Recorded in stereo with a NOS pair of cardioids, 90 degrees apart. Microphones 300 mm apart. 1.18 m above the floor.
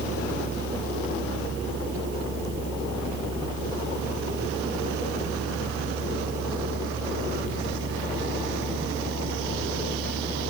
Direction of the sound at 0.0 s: 40° right.